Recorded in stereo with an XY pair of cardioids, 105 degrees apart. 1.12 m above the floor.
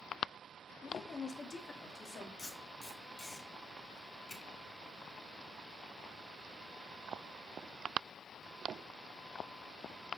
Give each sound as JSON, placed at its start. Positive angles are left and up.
{"t": 0.8, "sound": "a woman speaking", "azimuth_deg": 30, "distance_m": 1.1}
{"t": 2.4, "sound": "tape being pulled", "azimuth_deg": 25, "distance_m": 3.0}